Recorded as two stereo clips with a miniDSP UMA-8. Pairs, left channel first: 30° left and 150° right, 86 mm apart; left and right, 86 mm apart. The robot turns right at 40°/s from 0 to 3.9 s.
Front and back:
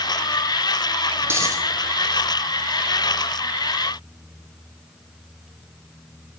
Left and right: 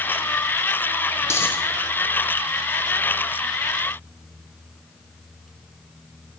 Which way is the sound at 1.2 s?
145° left.